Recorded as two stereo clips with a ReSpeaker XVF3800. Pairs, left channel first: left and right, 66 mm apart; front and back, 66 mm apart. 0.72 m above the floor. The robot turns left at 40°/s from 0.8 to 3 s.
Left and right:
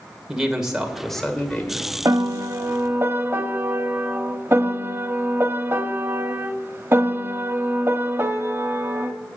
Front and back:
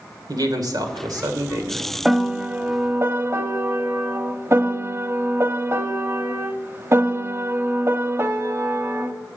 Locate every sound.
0.3 s a man speaking: 170° right, 2 m; by 1.9 s 145° left, 2 m
2.0 s a piano: 100° right, 1.0 m; by 9.1 s 140° right, 1.0 m